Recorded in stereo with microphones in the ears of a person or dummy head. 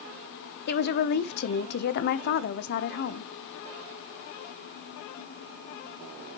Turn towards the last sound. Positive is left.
turn(degrees=55)  # may be behind; listen again after turning